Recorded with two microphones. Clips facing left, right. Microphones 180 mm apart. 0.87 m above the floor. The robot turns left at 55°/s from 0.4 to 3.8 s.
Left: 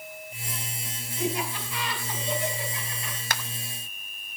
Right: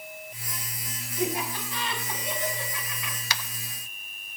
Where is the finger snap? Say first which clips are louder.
Left 2 dB; 50° left (ahead or behind), 0.9 m; by 3.4 s 55° left (ahead or behind), 0.9 m.